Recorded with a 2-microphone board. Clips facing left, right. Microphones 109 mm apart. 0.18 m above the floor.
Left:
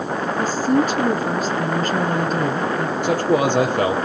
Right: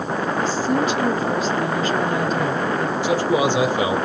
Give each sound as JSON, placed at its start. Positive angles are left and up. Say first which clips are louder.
{"t": 0.4, "sound": "a woman speaking", "louder": "left 4 dB", "side_deg": 50, "distance_m": 2.5}
{"t": 3.0, "sound": "a man speaking", "louder": "left 1 dB", "side_deg": 60, "distance_m": 4.5}